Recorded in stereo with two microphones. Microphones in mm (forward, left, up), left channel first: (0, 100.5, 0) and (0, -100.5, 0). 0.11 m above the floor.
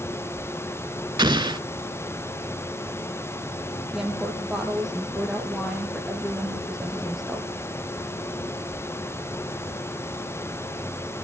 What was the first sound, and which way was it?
An explosion, 20° right (ahead or behind).